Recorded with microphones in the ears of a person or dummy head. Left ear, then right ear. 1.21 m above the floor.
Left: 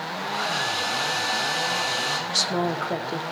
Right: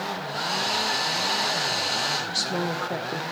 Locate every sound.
0.2 s a hair dryer: 30° left (ahead or behind), 2 m
2.3 s a woman speaking: 15° left (ahead or behind), 0.5 m